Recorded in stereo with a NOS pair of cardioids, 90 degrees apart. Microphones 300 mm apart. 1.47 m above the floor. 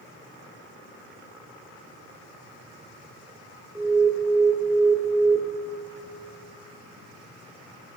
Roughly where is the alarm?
Ahead.